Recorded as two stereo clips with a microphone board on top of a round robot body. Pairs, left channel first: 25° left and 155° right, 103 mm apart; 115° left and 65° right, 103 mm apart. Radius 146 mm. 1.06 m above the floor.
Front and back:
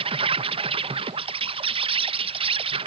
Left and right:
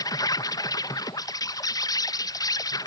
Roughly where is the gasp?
No gasp in this recording.